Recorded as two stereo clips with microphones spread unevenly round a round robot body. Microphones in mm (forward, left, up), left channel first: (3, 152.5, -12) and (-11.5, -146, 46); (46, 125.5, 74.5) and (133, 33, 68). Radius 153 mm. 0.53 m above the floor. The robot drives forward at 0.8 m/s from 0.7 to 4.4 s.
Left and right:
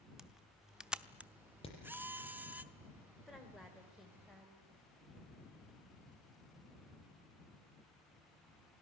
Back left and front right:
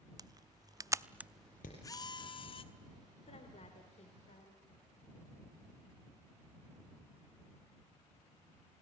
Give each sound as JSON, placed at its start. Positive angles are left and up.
{"t": 0.2, "sound": "a camera shutter", "azimuth_deg": 5, "distance_m": 0.8}
{"t": 1.6, "sound": "hammering", "azimuth_deg": 160, "distance_m": 7.0}
{"t": 3.3, "sound": "a woman speaking", "azimuth_deg": 170, "distance_m": 2.5}